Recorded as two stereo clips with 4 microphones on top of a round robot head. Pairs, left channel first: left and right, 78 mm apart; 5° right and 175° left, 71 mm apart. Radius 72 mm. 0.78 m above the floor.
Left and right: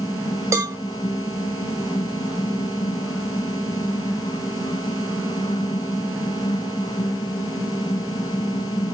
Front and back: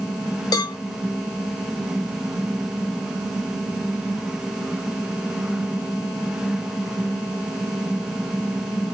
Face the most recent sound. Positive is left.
turn(degrees=-35)